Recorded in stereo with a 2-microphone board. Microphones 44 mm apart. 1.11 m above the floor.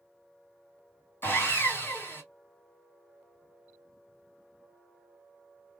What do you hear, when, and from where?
1.2 s sawing: 50° left (ahead or behind), 1.7 m